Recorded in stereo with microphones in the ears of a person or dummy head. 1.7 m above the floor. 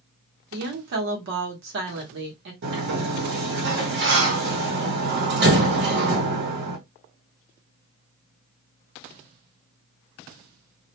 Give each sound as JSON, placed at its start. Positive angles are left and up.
{"t": 0.5, "sound": "a woman speaking", "side_deg": -70, "distance_m": 0.9}
{"t": 2.6, "sound": "a sliding door", "side_deg": -65, "distance_m": 1.0}